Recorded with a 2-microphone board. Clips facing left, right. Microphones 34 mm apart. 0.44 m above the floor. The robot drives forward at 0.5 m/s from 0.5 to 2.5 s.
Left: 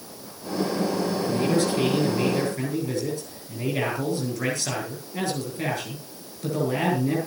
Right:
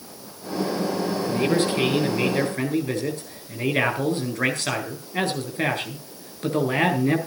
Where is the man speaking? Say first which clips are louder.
Right 2 dB; 40° right (ahead or behind), 9.5 m; by 7.2 s 45° right (ahead or behind), 9 m.